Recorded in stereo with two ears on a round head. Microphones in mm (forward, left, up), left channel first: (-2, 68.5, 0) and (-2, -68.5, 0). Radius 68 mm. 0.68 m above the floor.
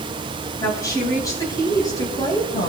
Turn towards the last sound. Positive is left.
turn(degrees=25)  # may be behind; listen again after turning